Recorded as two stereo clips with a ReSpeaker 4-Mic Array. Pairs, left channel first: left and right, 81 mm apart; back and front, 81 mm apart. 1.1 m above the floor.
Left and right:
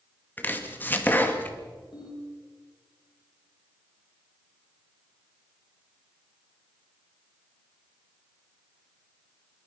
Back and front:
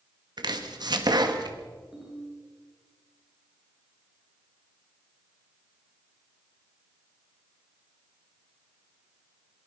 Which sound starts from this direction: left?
A ringtone, at 1.9 s.